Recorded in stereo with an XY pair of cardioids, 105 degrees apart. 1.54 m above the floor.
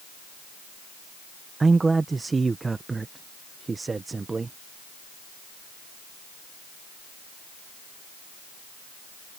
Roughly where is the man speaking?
Ahead right.